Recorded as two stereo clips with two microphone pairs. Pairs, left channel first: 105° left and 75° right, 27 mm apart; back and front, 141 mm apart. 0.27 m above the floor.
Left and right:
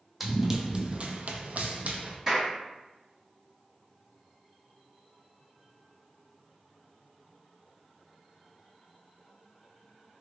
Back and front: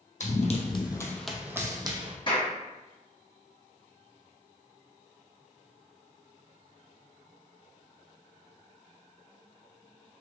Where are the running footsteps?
155° right, 0.8 m; by 2.2 s 50° right, 0.8 m.